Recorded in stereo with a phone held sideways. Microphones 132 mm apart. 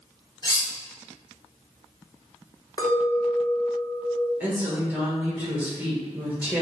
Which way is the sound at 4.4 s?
15° right (ahead or behind).